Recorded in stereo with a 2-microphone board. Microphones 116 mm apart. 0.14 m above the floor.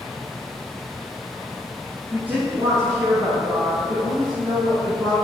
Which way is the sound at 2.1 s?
5° right (ahead or behind).